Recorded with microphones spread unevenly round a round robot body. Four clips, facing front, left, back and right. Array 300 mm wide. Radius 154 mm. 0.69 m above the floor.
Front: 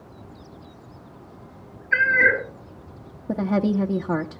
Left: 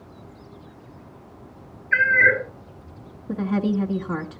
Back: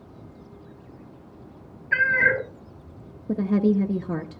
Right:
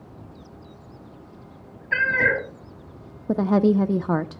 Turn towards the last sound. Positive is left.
turn(degrees=-90)